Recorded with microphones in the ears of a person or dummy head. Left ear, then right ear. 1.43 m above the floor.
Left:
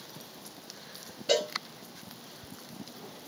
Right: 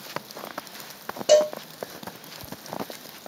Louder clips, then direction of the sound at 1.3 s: Right 10 dB; 15° right (ahead or behind).